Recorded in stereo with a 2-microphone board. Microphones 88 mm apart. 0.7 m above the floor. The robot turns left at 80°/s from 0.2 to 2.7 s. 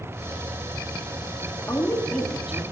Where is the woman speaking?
55° left, 1.4 m; by 2.6 s 20° right, 1.4 m.